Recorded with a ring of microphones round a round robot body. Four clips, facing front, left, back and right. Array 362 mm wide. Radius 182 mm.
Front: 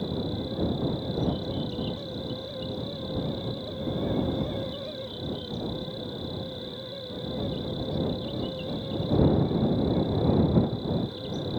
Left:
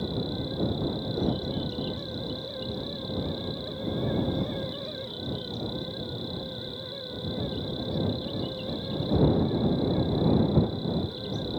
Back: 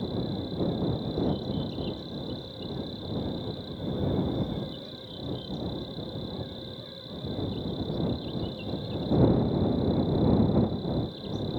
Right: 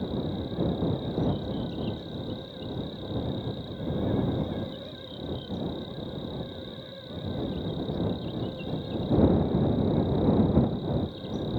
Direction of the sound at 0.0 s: 70° left.